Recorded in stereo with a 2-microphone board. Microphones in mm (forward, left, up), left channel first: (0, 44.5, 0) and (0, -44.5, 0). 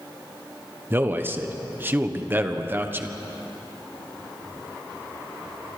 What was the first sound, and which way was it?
A man speaking, 20° right (ahead or behind).